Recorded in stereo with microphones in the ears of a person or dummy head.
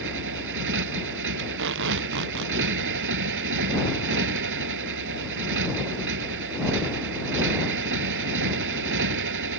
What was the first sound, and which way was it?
A motorcycle, 70° right (ahead or behind).